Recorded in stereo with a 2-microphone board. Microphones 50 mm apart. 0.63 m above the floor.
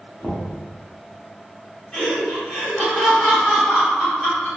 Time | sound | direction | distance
0.2 | knocking | 20° left (ahead or behind) | 0.8 m
1.9 | laughter | 20° left (ahead or behind) | 1.9 m